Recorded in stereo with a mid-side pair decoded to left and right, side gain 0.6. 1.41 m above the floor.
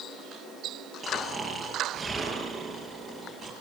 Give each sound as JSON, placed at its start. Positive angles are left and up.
{"t": 1.0, "sound": "snoring", "azimuth_deg": -10, "distance_m": 5.5}